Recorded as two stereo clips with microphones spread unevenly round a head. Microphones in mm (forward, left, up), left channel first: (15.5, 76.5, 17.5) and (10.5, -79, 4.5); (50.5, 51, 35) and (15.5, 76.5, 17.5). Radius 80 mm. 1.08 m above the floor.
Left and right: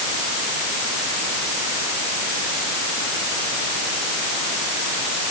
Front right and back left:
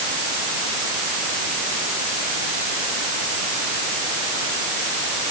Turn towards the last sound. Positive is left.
No sound to turn to.